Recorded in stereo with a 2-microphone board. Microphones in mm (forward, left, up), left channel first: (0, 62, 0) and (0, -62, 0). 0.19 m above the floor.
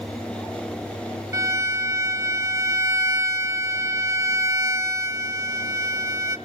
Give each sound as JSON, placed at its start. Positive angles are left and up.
{"t": 1.3, "sound": "a violin", "side_deg": -25, "distance_m": 0.5}